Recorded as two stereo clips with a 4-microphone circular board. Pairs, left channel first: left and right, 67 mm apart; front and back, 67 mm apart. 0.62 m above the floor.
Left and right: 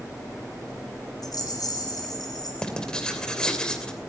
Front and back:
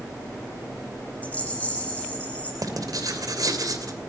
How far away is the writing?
About 2.5 m.